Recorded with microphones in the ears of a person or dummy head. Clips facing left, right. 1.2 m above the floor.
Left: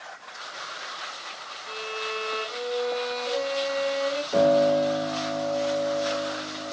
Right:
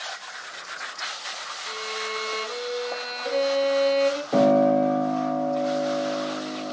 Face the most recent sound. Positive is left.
turn(degrees=-75)  # may be behind; listen again after turning